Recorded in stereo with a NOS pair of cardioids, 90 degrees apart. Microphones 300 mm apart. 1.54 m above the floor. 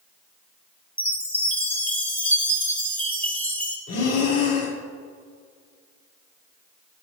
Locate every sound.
1.0 s a chime: 5° left, 1.3 m
3.9 s breathing: 60° left, 1.3 m